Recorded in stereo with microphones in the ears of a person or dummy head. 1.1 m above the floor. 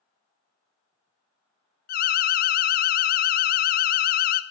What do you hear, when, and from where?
1.9 s an alarm: 40° left (ahead or behind), 0.6 m